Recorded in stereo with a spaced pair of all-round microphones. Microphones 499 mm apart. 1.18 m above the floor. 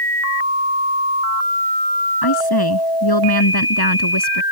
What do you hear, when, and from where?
2.2 s a woman speaking: 45° left (ahead or behind); by 4.4 s 50° left (ahead or behind)